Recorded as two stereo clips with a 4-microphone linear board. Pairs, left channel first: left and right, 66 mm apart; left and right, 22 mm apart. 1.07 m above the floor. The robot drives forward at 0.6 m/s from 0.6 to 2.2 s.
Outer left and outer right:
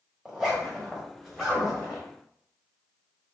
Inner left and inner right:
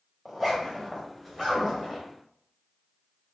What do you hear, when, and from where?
0.2 s a zipper: 5° right (ahead or behind), 1.1 m; by 2.0 s centre (ahead or behind), 1.9 m